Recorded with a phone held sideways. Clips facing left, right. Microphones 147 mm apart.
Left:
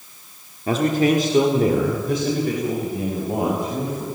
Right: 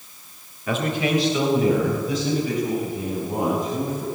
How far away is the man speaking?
About 3 m.